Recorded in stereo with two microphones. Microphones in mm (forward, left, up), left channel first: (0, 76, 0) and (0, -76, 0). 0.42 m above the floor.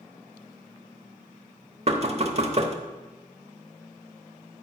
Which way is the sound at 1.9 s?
45° right (ahead or behind).